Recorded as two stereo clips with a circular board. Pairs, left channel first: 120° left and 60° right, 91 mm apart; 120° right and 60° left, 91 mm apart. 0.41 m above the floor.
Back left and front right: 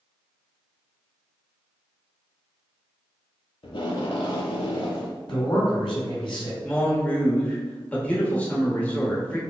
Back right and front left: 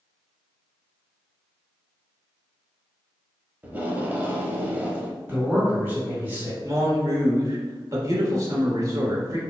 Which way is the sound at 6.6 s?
55° left.